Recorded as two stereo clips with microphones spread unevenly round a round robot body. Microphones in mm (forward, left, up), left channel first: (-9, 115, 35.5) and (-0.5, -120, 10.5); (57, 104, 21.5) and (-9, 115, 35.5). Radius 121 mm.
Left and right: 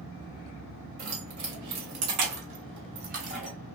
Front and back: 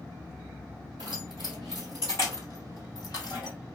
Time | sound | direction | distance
1.0 | keys jangling | 105° right | 1.9 m